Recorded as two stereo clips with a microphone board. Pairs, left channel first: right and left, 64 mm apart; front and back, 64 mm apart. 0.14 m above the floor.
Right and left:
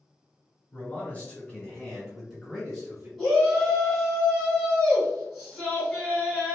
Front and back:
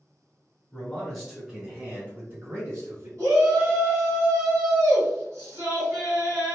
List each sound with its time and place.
0.7 s a man speaking: 60° right, 1.7 m; by 3.1 s 165° left, 2 m
3.2 s a shout: 175° left, 1.9 m